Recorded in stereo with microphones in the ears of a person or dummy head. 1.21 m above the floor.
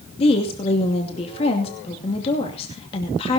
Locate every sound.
0.2 s a woman speaking: 30° left (ahead or behind), 2.5 m